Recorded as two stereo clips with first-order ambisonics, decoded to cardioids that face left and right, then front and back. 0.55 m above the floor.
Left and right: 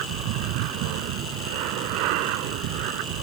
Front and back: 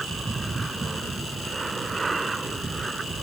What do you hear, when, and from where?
0.0 s an aircraft: 100° right; by 3.2 s 105° right